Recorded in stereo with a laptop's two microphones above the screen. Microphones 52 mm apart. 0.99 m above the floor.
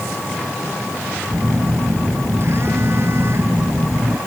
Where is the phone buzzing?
45° right (ahead or behind).